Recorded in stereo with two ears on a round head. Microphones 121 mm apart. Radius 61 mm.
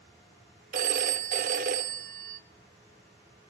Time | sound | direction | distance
0.7 | a phone ringing | 65° right (ahead or behind) | 1.0 m